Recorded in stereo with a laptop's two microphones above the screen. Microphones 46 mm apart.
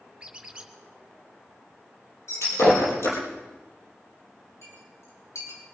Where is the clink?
85° left, 6 m.